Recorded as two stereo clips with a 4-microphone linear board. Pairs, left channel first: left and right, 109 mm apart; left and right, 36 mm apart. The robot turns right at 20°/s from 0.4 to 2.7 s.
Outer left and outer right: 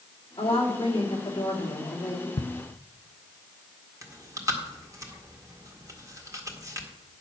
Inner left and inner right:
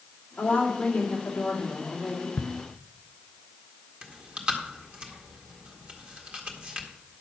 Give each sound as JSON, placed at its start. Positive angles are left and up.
{"t": 0.4, "sound": "a woman speaking", "azimuth_deg": 125, "distance_m": 2.5}
{"t": 2.4, "sound": "ticking", "side_deg": 65, "distance_m": 0.6}
{"t": 4.0, "sound": "chewing", "side_deg": -30, "distance_m": 1.7}